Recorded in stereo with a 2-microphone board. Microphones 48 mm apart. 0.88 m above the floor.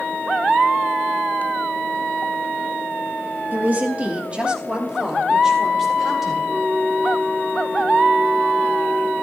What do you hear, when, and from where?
3.5 s a woman speaking: 45° right (ahead or behind), 1.8 m; by 6.4 s 10° right (ahead or behind), 4 m
6.5 s a flute: 35° right (ahead or behind), 3 m